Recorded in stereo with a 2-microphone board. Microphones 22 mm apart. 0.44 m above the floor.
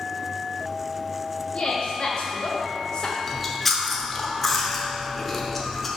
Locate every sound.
1.5 s a woman speaking: 50° left (ahead or behind), 1.7 m; by 3.2 s 40° left (ahead or behind), 1.0 m
3.3 s chewing: 10° left (ahead or behind), 0.8 m